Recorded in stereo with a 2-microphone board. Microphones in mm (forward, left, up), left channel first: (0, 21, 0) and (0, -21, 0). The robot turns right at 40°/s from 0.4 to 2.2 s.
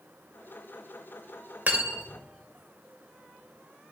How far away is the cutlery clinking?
About 0.6 m.